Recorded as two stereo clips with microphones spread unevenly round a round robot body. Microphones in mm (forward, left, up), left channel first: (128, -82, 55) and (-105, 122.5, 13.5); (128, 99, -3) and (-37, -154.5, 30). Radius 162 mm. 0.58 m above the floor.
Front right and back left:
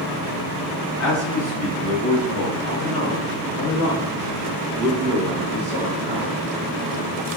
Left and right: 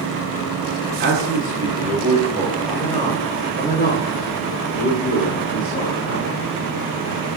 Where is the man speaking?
70° right, 1.4 m; by 6.4 s 65° left, 2 m.